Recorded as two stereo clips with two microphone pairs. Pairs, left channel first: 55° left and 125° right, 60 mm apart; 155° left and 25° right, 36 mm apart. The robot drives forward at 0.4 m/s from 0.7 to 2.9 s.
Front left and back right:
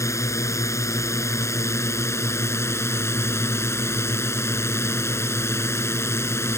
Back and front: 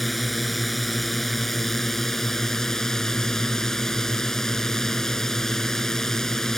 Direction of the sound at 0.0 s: 70° left.